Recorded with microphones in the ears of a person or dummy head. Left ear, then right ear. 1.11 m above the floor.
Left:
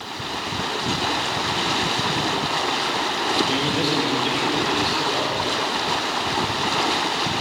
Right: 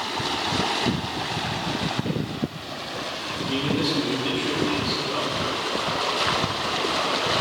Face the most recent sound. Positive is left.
turn(degrees=15)  # may be behind; listen again after turning